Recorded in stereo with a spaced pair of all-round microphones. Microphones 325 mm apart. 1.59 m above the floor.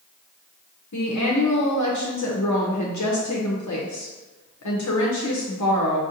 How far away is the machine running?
No machine running in this recording.